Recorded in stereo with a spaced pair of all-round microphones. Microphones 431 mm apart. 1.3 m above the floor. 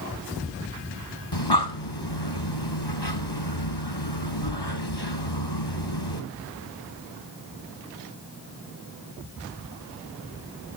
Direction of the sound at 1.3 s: 65° left (ahead or behind).